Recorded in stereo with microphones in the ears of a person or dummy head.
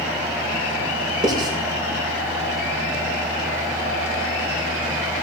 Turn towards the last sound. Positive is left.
turn(degrees=-25)  # may be behind; listen again after turning